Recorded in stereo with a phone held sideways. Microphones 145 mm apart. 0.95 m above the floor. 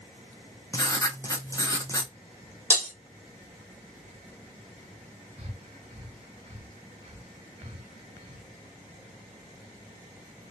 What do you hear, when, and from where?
0.7 s writing: 20° left (ahead or behind), 0.9 m
2.7 s breaking glass: 15° left (ahead or behind), 1.1 m
5.4 s breathing: 40° right (ahead or behind), 2.5 m